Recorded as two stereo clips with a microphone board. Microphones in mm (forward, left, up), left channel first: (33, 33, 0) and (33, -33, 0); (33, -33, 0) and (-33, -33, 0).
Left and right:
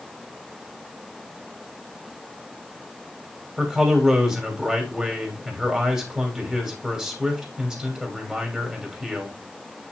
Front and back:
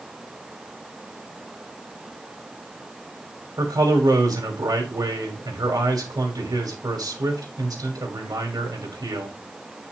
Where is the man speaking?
170° right, 2.5 m.